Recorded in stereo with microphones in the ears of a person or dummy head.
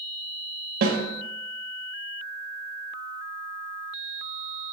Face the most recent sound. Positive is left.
turn(degrees=-55)  # may be behind; listen again after turning